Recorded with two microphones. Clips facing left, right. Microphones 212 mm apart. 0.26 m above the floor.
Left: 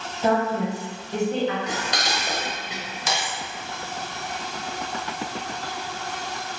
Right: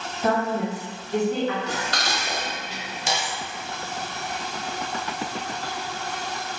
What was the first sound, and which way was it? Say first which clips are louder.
A woman speaking: left 1 dB; 25° left (ahead or behind).